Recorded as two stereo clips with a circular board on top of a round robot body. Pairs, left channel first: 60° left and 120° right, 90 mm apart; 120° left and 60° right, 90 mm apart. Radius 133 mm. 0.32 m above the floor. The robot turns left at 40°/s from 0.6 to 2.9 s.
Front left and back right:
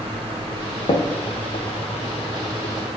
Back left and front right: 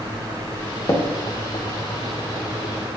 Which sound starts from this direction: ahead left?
Tapping, at 0.9 s.